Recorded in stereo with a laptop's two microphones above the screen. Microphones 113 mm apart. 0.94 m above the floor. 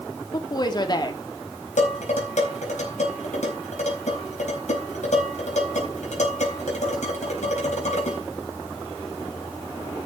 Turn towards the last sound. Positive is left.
turn(degrees=90)